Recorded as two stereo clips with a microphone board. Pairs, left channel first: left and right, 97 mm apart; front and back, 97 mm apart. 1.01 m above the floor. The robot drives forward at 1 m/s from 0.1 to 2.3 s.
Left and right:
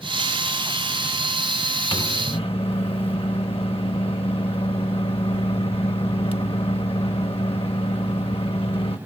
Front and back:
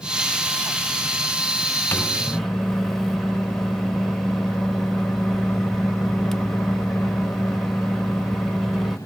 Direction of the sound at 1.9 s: 70° left.